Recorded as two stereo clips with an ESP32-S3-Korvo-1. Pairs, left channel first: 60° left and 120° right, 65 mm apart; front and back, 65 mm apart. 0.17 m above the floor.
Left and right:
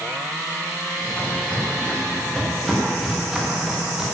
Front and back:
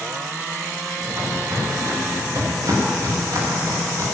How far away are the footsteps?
About 7 m.